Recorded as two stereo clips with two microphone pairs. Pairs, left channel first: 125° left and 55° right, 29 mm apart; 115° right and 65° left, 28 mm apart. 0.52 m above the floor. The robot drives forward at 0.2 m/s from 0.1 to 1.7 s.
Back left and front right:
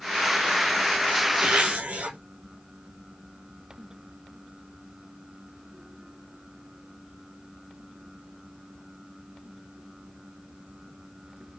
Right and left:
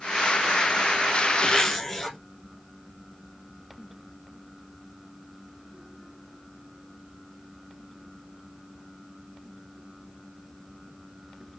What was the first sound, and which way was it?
A zipper, 40° right.